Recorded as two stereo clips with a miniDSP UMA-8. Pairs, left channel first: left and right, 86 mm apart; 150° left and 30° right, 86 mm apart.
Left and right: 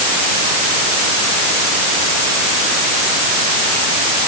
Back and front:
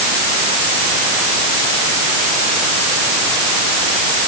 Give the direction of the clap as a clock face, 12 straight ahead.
I don't hear a clap.